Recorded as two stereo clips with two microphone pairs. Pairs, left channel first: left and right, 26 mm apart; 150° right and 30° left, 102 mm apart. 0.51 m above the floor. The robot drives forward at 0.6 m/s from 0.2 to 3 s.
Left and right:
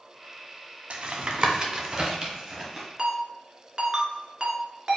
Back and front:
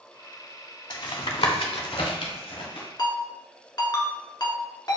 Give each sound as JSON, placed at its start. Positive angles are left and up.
{"t": 0.9, "sound": "tapping", "azimuth_deg": -115, "distance_m": 0.5}
{"t": 3.0, "sound": "a ringtone", "azimuth_deg": -140, "distance_m": 1.0}